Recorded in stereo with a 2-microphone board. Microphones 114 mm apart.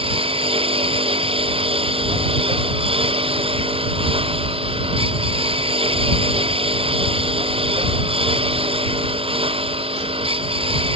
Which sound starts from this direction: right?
A lawn mower, at 0.0 s.